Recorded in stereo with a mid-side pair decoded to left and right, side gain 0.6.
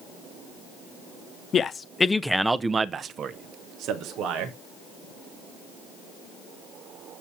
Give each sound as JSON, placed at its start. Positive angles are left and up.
{"t": 1.5, "sound": "a man speaking", "azimuth_deg": 40, "distance_m": 0.9}